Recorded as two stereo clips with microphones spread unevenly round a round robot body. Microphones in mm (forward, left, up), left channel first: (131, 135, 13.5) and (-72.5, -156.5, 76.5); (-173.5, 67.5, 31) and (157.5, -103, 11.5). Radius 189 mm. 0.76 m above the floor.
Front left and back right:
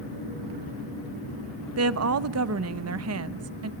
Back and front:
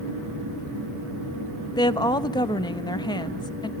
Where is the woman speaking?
135° right, 1.1 m.